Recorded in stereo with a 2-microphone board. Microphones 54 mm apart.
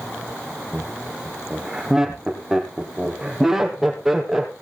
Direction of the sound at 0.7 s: 5° right (ahead or behind).